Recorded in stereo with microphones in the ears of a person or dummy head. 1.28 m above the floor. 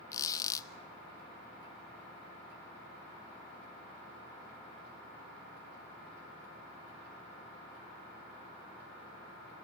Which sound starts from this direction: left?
A squeak, at 0.1 s.